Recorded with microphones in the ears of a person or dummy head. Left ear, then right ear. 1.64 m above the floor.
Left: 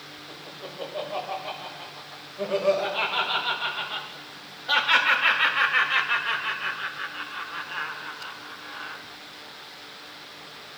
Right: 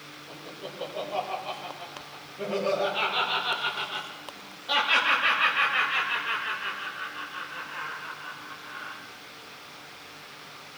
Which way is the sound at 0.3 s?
20° left (ahead or behind).